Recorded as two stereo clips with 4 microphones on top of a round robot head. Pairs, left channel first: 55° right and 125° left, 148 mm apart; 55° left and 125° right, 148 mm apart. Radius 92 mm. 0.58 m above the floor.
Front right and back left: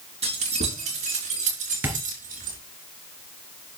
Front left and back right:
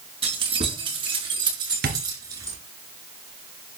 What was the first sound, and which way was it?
Keys jangling, 175° left.